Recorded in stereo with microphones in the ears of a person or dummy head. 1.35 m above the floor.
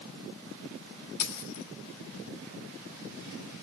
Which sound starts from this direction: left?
A dropped coin, at 1.2 s.